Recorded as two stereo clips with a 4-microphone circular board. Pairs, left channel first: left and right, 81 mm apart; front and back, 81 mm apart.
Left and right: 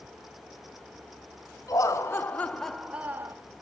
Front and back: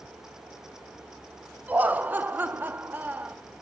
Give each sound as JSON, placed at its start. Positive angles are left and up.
{"t": 1.7, "sound": "laughter", "azimuth_deg": 115, "distance_m": 0.9}